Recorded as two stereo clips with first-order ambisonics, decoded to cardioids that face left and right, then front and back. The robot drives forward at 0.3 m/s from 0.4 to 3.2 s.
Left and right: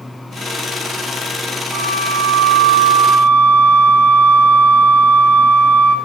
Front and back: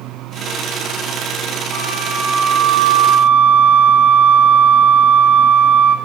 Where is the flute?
140° right, 4 m; by 6.0 s 145° right, 4 m.